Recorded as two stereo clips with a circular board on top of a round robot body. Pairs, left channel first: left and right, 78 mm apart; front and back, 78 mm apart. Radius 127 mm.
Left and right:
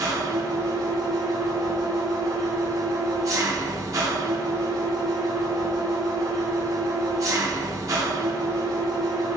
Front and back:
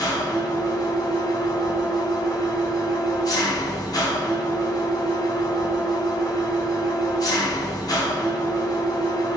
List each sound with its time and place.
0.0 s an engine running: 40° right, 1.3 m